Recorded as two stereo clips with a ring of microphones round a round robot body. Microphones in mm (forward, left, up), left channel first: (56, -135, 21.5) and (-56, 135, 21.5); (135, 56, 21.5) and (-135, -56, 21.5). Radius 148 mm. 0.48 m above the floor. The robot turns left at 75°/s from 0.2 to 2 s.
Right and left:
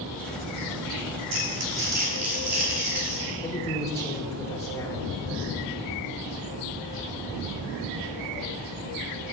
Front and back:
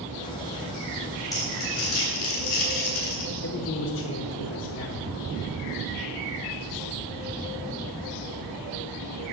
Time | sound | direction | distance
1.3 | crumpling | 100° left | 3.5 m
3.4 | a man speaking | 5° left | 0.8 m